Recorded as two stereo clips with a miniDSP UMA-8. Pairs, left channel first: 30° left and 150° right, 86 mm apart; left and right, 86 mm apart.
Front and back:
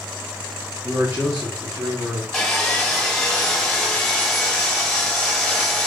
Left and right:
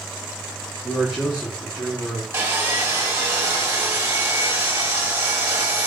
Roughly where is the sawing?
Ahead right.